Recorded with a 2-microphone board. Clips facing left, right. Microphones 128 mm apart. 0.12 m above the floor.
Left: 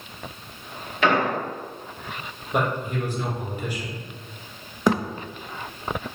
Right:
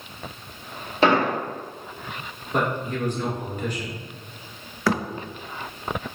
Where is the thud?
20° left (ahead or behind), 0.5 m.